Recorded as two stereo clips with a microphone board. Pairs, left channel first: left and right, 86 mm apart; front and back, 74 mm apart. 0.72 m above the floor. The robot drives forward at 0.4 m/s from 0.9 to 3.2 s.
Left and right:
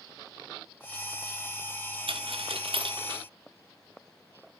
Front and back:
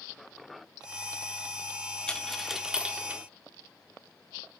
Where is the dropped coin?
80° right, 0.8 m; by 3.2 s 115° right, 0.8 m.